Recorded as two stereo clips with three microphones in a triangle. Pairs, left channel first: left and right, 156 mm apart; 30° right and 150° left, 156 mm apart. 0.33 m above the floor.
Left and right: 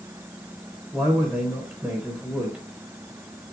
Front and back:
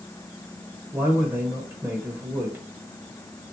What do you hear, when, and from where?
0.9 s a man speaking: 160° right, 0.9 m